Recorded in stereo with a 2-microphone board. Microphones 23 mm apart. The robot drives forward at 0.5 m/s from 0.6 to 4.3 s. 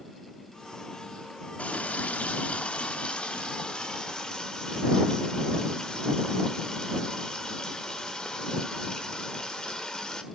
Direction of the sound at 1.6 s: 75° left (ahead or behind).